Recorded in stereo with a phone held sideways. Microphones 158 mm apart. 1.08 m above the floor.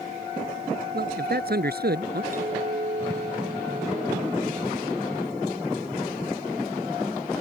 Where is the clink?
60° right (ahead or behind).